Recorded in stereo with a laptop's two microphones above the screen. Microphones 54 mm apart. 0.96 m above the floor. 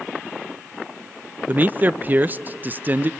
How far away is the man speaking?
About 0.5 m.